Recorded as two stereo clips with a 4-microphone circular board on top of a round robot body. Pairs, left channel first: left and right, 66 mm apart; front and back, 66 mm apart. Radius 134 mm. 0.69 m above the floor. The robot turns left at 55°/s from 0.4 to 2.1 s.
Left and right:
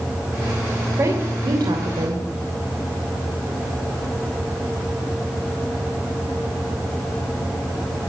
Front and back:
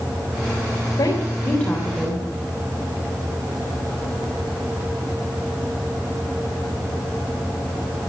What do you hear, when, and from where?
1.0 s a woman speaking: 40° right, 3 m; by 2.2 s 100° right, 3 m